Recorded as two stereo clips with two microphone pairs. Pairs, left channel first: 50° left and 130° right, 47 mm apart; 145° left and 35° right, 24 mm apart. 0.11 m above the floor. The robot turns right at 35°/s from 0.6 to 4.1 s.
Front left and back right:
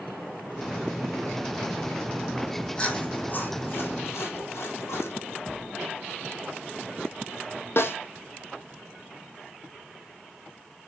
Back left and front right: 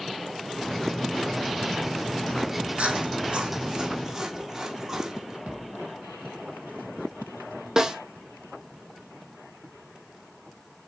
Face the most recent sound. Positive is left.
turn(degrees=25)